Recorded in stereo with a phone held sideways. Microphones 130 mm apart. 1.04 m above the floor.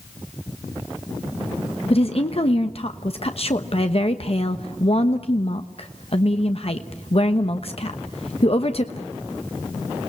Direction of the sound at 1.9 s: 50° left (ahead or behind).